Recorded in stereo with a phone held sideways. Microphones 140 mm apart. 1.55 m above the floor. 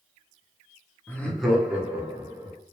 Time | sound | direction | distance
1.1 | laughter | 15° left (ahead or behind) | 0.9 m